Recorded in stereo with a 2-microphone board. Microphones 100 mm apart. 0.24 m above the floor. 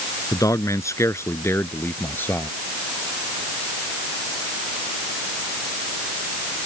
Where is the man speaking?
35° left (ahead or behind); by 2.5 s 15° left (ahead or behind).